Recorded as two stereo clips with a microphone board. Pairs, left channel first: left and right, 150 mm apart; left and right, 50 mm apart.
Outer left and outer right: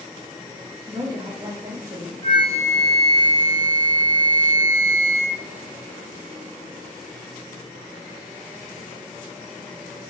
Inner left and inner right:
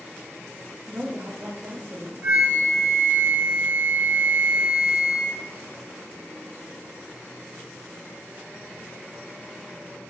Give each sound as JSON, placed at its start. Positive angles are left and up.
{"t": 0.9, "sound": "a woman speaking", "side_deg": -30, "distance_m": 0.8}
{"t": 2.2, "sound": "a flute", "side_deg": -25, "distance_m": 1.4}